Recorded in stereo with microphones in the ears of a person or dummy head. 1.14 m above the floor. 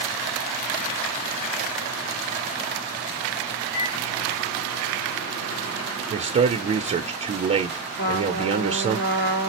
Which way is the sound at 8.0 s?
60° left (ahead or behind).